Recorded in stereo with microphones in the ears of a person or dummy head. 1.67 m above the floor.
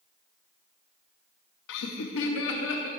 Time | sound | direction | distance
1.7 | laughter | 65° left (ahead or behind) | 0.9 m